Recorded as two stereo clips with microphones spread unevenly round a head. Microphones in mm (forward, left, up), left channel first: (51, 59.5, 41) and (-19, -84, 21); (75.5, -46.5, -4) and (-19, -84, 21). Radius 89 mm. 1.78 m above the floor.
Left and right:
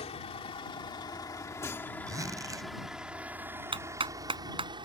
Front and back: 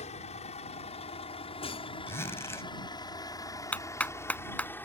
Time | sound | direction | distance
0.0 | a vehicle | 15° left | ?
2.1 | a zipper | 45° right | ?
3.7 | a clap | 55° right | ?